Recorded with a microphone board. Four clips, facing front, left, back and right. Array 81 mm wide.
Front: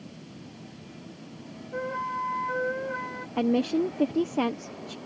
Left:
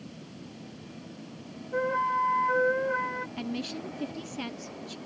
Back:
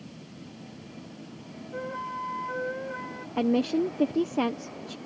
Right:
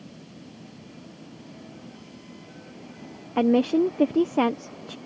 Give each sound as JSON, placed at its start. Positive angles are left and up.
{"t": 1.7, "sound": "a flute", "azimuth_deg": 80}
{"t": 3.4, "sound": "a woman speaking", "azimuth_deg": -90}